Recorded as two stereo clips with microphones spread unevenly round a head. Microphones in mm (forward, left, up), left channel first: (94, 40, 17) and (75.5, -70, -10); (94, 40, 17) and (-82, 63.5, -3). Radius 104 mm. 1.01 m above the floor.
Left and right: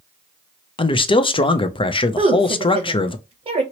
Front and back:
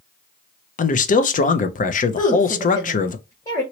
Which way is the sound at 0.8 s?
35° left.